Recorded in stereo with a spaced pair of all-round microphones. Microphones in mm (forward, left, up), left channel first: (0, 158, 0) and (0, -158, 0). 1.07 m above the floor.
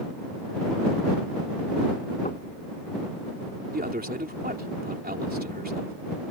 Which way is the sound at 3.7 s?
30° right (ahead or behind).